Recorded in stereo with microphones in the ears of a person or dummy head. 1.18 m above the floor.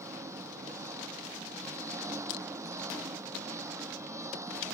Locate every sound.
0.0 s an engine running: 10° right (ahead or behind)
2.3 s crushing: 60° left (ahead or behind)